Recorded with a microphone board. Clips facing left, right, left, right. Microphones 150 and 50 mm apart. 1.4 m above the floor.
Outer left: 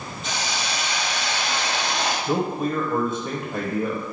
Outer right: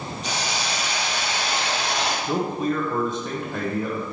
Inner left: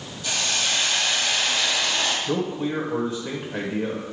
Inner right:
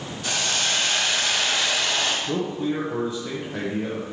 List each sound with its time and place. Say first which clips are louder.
0.2 s a hiss: even, even; 80° right, 2 m
2.3 s a man speaking: even, even; 10° left (ahead or behind), 1.0 m